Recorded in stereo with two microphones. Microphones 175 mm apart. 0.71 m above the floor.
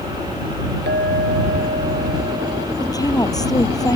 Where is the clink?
75° right (ahead or behind).